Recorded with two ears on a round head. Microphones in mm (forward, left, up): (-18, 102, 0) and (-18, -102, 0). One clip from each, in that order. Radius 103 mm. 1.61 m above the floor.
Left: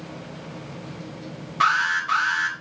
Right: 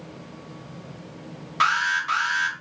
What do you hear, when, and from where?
1.6 s an alarm: 40° right (ahead or behind), 5.5 m